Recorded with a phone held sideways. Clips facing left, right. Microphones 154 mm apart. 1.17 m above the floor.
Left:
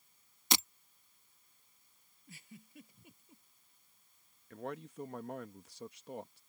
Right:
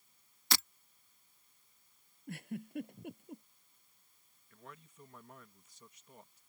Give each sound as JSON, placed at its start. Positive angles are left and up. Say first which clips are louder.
{"t": 0.5, "sound": "breaking glass", "louder": "left 3 dB", "side_deg": 20}
{"t": 2.3, "sound": "a giggle", "louder": "right 14 dB", "side_deg": -65}
{"t": 4.5, "sound": "a man speaking", "louder": "left 13 dB", "side_deg": 75}